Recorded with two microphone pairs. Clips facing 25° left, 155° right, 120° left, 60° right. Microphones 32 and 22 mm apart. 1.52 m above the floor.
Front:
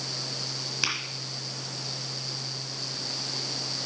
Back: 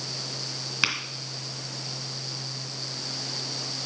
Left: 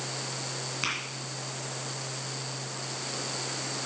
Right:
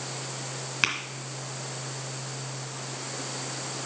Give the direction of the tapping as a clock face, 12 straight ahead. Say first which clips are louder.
Back 4 dB, right 6 dB; 3 o'clock.